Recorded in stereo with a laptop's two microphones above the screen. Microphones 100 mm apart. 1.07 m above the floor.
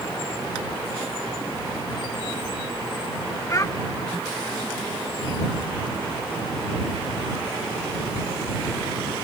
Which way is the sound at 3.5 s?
35° left (ahead or behind).